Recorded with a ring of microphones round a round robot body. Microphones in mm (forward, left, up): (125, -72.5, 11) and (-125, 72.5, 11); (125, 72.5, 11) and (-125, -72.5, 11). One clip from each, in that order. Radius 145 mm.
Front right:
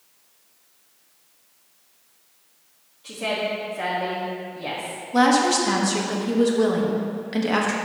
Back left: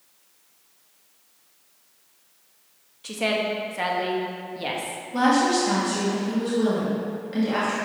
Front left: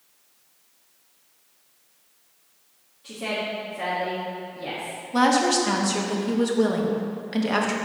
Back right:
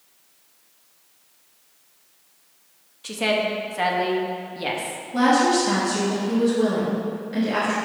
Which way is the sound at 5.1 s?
20° left.